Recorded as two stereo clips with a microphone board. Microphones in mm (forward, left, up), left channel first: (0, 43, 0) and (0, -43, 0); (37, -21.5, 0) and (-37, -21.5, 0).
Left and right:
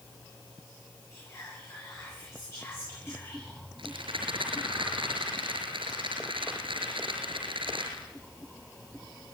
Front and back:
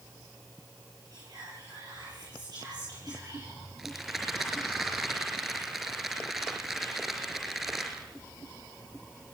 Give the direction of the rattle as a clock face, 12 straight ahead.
3 o'clock.